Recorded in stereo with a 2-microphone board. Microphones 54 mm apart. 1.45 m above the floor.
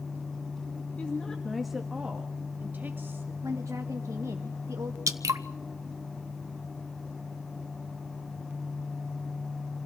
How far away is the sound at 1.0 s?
About 2 m.